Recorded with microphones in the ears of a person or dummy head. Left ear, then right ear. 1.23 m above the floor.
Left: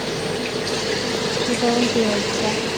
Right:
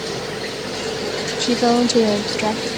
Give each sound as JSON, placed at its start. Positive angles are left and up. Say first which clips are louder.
{"t": 1.4, "sound": "a woman speaking", "louder": "right 4 dB", "side_deg": -55}